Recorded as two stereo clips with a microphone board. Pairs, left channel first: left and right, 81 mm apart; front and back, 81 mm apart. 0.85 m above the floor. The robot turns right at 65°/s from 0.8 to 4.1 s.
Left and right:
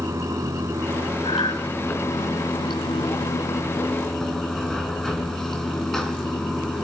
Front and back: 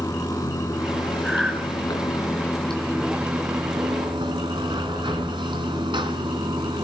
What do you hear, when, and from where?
0.0 s running water: 40° right, 3 m; by 6.8 s 175° left, 3 m
1.2 s breathing: 85° left, 7.5 m; by 1.6 s 105° left, 7.5 m